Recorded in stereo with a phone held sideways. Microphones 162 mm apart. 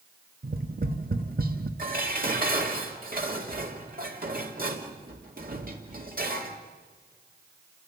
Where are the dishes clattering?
65° right (ahead or behind), 2 m.